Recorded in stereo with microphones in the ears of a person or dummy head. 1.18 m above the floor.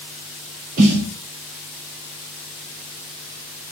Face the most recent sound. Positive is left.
turn(degrees=-40)  # may be behind; listen again after turning